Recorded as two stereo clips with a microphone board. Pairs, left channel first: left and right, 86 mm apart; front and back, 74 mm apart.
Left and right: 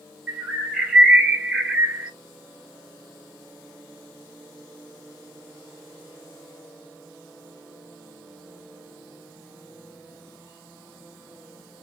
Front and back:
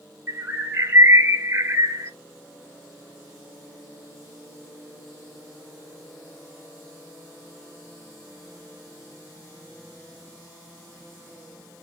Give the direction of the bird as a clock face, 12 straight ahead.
5 o'clock.